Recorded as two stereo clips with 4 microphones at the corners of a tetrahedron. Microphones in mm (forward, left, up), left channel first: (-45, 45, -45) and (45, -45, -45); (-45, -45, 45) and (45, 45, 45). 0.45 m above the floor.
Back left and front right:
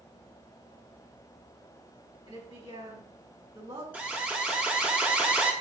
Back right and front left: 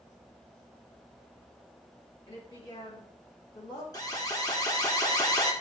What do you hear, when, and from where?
2.3 s a woman speaking: 90° right, 3.5 m
3.9 s an alarm: 110° right, 1.4 m